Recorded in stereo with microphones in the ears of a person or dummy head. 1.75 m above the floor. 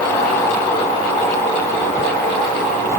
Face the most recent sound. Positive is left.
No sound to turn to.